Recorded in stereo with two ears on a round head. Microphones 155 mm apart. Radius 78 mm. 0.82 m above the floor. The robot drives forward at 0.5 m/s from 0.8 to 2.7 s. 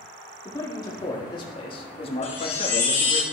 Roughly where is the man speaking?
Left.